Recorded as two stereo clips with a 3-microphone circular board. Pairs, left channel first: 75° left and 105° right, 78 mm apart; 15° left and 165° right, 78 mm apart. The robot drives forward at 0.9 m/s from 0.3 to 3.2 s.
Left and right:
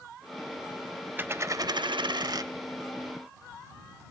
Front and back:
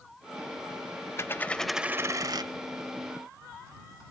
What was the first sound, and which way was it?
A dropped coin, 40° right.